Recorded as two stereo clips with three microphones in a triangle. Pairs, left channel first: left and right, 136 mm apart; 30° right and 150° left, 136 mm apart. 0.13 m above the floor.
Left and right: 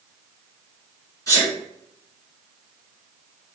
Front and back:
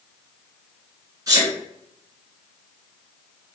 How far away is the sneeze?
About 1.7 m.